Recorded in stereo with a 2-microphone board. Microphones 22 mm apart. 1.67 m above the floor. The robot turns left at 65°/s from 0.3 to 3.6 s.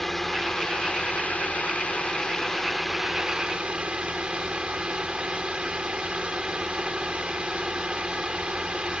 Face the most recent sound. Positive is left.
turn(degrees=-45)